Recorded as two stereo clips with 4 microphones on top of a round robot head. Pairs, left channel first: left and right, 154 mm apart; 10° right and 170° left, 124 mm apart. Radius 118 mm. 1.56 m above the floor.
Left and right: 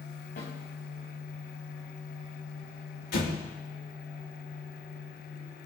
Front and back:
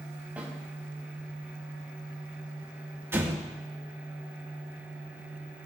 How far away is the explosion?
About 2.5 m.